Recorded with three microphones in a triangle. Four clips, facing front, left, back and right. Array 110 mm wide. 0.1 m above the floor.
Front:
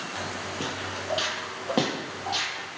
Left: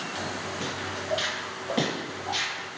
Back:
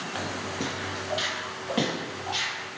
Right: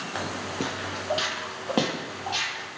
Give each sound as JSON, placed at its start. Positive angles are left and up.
{"t": 0.1, "sound": "footsteps", "azimuth_deg": -100, "distance_m": 0.6}